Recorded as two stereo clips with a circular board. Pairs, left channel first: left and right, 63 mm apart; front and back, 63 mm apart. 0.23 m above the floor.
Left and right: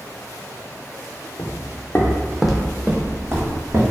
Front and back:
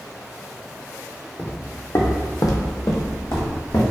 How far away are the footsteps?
About 0.6 m.